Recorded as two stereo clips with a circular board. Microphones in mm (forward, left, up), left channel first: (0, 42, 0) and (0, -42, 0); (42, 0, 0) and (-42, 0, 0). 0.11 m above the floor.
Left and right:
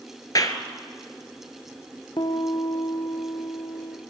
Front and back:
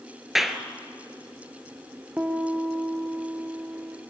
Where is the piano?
110° left, 1.9 m.